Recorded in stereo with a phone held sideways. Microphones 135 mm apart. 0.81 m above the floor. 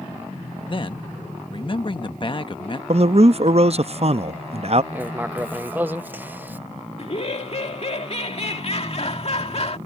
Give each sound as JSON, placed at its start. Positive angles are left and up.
{"t": 0.7, "sound": "a man speaking", "side_deg": 40}
{"t": 2.9, "sound": "a man speaking", "side_deg": -50}
{"t": 4.9, "sound": "writing", "side_deg": -15}
{"t": 7.0, "sound": "laughter", "side_deg": 50}